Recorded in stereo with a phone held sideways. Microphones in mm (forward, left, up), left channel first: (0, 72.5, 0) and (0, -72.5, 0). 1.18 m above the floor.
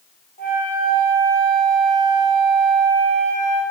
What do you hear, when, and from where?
0.4 s a flute: 75° left (ahead or behind), 2 m